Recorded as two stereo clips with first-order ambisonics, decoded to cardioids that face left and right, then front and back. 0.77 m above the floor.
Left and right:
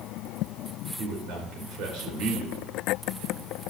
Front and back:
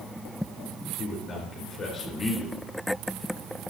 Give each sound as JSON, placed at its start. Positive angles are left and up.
{"t": 1.0, "sound": "a man speaking", "azimuth_deg": -60, "distance_m": 3.0}